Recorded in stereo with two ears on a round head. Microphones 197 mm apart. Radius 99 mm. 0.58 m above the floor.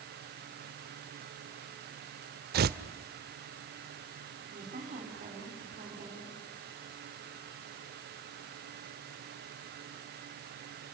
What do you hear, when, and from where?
2.5 s tearing paper: 45° right (ahead or behind), 0.6 m
4.5 s a woman speaking: 40° right (ahead or behind), 4.5 m